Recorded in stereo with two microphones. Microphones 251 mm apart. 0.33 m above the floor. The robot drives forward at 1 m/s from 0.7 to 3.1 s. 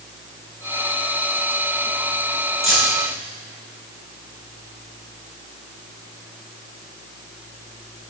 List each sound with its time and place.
2.6 s keys jangling: centre (ahead or behind), 3 m